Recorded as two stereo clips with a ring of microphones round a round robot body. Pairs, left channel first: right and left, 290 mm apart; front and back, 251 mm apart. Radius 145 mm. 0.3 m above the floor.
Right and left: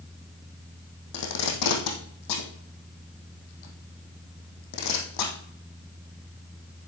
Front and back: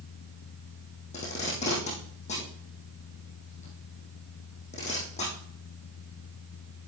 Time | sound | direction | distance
1.1 | tape being pulled | 70° right | 3 m